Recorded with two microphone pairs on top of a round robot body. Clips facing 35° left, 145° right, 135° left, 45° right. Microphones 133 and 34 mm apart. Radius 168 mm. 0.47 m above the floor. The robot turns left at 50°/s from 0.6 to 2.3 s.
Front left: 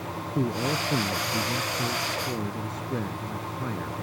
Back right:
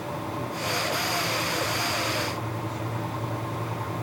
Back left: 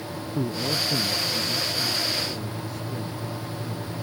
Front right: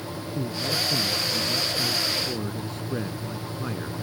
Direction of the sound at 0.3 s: 85° left.